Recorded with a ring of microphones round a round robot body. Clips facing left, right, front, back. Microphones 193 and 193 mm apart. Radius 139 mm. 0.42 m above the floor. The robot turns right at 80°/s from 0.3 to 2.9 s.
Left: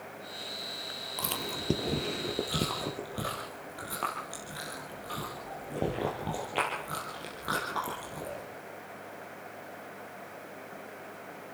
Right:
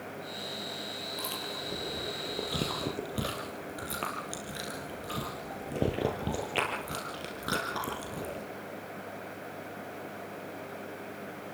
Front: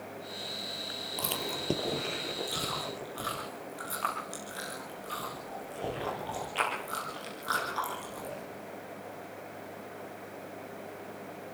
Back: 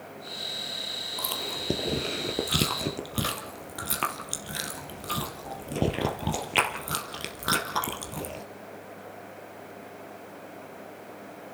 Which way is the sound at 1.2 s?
60° left.